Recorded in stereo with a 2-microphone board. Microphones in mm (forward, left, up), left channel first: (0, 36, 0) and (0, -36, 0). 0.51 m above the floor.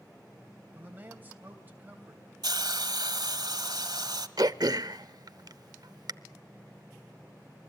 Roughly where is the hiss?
Right.